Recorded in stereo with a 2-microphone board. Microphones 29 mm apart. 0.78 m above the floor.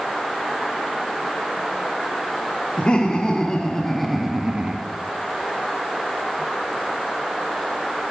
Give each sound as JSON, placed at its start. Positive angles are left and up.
{"t": 2.8, "sound": "laughter", "side_deg": 40, "distance_m": 1.9}